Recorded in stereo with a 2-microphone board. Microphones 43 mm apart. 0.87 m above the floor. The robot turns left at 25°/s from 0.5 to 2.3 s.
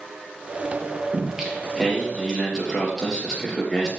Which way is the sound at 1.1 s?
20° right (ahead or behind).